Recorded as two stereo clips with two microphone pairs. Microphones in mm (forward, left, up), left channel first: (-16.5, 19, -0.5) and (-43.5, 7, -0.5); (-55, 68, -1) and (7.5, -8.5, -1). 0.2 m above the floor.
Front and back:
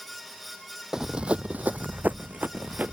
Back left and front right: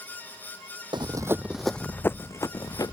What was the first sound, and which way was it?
Running footsteps, 90° right.